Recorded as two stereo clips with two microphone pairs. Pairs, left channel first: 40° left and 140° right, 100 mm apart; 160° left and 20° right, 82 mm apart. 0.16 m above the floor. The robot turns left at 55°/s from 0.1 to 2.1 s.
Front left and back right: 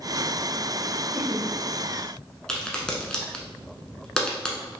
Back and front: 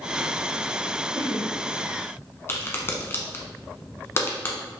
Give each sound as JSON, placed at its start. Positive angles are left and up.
{"t": 1.1, "sound": "laughter", "azimuth_deg": 175, "distance_m": 1.2}
{"t": 2.5, "sound": "a crack", "azimuth_deg": 120, "distance_m": 1.0}